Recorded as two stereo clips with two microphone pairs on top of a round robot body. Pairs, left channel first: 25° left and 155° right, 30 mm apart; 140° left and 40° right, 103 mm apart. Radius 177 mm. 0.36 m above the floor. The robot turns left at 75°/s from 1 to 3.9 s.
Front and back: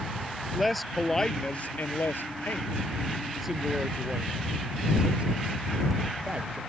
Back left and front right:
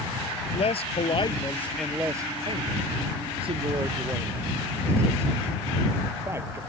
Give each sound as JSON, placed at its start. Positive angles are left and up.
{"t": 0.5, "sound": "a man speaking", "azimuth_deg": 110}